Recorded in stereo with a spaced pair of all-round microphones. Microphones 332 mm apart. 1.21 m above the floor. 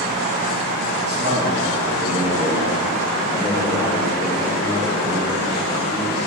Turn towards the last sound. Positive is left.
turn(degrees=20)  # may be behind; listen again after turning